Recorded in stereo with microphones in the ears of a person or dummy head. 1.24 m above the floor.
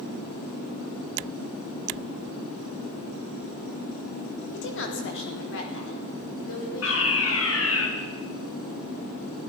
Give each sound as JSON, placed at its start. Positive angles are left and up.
{"t": 4.5, "sound": "a woman speaking", "side_deg": 55, "distance_m": 3.0}
{"t": 6.8, "sound": "a fire alarm", "side_deg": 70, "distance_m": 3.5}